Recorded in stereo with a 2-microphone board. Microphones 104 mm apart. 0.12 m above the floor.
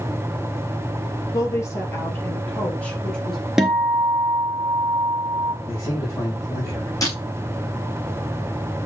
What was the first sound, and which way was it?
A woman speaking, 30° left (ahead or behind).